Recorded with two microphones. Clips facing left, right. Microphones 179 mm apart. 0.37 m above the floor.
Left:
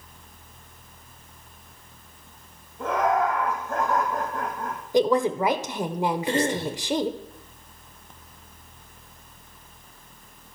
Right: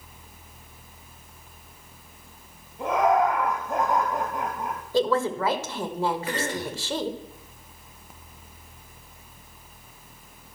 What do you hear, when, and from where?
2.8 s laughter: 20° right (ahead or behind), 2 m
4.9 s a woman speaking: 15° left (ahead or behind), 1.1 m
6.3 s a cough: 25° left (ahead or behind), 1.0 m